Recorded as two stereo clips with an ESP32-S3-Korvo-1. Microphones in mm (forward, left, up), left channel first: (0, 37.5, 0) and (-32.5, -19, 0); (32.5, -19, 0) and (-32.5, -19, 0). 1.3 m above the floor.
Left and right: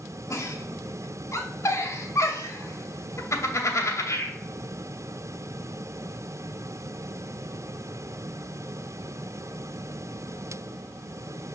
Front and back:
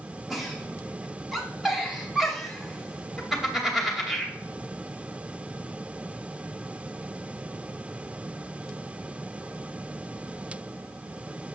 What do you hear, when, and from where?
0.3 s a giggle: 95° left, 1.0 m